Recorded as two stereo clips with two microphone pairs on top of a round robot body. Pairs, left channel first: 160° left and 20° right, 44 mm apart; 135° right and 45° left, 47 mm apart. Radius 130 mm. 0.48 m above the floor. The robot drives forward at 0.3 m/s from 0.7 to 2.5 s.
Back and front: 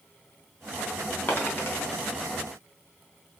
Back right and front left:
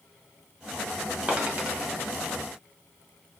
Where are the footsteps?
I don't hear footsteps.